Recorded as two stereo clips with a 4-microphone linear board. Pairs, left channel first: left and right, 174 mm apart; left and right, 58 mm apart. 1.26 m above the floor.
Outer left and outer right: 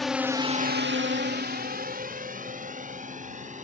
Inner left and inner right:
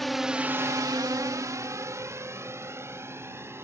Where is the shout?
No shout in this recording.